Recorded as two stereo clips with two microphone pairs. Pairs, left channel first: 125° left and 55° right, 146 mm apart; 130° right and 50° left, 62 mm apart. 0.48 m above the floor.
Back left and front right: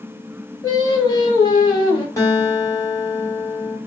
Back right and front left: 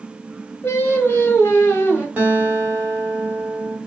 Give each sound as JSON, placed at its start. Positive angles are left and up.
{"t": 0.6, "sound": "singing", "azimuth_deg": -175, "distance_m": 1.1}
{"t": 2.2, "sound": "a guitar", "azimuth_deg": 80, "distance_m": 1.4}